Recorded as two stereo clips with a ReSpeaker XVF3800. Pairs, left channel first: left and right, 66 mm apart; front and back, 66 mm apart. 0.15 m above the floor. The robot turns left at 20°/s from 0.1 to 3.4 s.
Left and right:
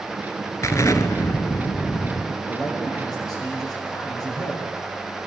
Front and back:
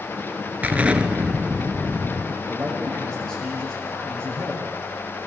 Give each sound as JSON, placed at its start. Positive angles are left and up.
{"t": 0.6, "sound": "an explosion", "azimuth_deg": 120, "distance_m": 0.8}
{"t": 2.5, "sound": "a man speaking", "azimuth_deg": 100, "distance_m": 7.5}